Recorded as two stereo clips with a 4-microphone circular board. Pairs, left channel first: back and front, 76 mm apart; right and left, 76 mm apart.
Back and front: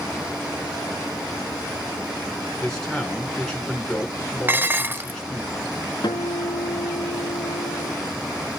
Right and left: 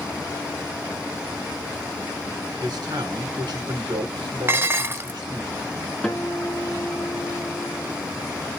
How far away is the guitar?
About 2.5 m.